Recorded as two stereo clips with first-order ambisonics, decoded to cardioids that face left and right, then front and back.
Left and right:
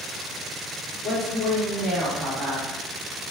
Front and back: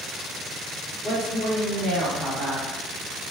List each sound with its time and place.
1.0 s a woman speaking: straight behind, 1.3 m